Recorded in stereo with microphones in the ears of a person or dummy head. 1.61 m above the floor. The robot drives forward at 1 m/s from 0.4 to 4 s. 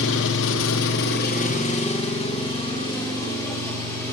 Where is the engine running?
70° left (ahead or behind), 0.9 m; by 4.1 s 15° left (ahead or behind), 3.5 m.